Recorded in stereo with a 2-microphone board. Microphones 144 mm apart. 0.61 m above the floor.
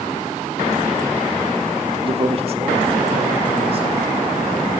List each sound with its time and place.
2.0 s a man speaking: 35° right (ahead or behind), 0.9 m; by 3.9 s 45° right (ahead or behind), 3 m